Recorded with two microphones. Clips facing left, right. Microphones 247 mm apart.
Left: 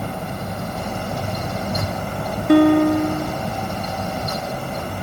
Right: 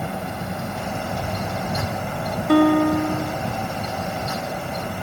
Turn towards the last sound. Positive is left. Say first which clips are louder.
# left 3 dB
turn(degrees=25)  # may be behind; listen again after turning